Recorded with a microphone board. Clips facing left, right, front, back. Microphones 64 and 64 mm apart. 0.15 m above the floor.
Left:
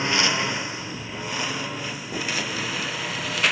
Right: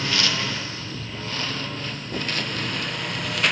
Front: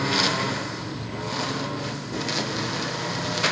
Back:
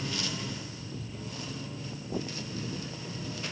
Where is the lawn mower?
20° left; by 3.5 s straight ahead.